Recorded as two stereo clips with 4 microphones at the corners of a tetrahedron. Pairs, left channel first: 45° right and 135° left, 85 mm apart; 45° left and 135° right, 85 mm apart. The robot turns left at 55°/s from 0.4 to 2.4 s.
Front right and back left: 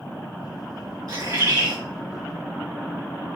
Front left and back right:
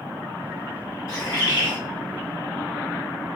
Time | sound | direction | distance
1.1 | a bird | 100° left | 2 m